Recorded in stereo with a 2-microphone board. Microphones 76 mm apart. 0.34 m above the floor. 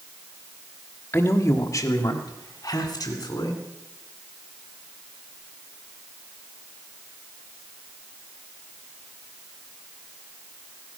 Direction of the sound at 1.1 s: 25° left (ahead or behind).